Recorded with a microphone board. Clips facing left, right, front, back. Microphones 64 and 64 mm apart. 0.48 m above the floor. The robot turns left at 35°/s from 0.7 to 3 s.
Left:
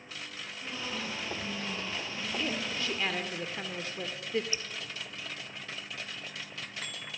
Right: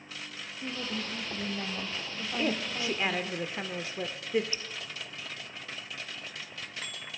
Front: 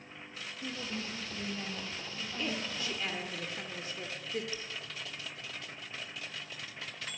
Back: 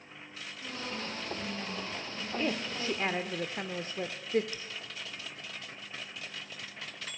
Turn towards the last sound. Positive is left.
turn(degrees=160)